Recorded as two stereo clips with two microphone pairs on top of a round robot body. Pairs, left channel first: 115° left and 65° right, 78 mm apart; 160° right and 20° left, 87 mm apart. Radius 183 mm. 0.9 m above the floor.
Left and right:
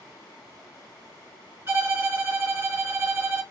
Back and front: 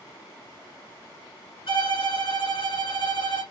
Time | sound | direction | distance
1.7 | a violin | 135° right | 3 m